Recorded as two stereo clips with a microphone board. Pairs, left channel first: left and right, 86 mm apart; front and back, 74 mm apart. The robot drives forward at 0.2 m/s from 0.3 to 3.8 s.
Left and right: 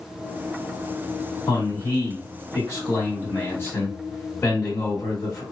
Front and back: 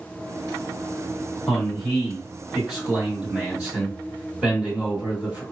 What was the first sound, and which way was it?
A man speaking, 90° left.